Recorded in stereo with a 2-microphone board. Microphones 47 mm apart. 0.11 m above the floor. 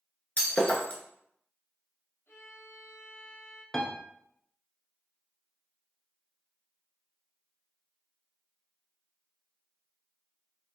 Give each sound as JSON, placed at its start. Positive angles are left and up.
{"t": 0.4, "sound": "breaking glass", "side_deg": 35, "distance_m": 0.9}
{"t": 2.3, "sound": "a violin", "side_deg": 65, "distance_m": 1.2}
{"t": 3.7, "sound": "a piano", "side_deg": 10, "distance_m": 0.6}